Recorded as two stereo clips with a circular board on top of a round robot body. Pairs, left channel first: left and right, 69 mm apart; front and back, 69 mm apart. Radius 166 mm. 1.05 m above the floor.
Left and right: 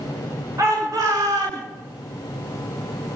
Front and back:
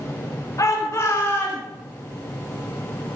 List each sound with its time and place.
0.6 s a shout: 45° right, 4 m; by 1.6 s 65° right, 4.5 m